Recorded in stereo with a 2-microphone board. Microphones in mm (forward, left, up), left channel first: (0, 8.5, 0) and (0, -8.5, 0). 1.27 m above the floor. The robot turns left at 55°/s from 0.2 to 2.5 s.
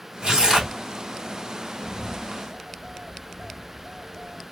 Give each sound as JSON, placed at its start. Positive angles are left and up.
{"t": 0.2, "sound": "tearing paper", "azimuth_deg": -110, "distance_m": 1.7}
{"t": 1.8, "sound": "a bird", "azimuth_deg": -70, "distance_m": 1.1}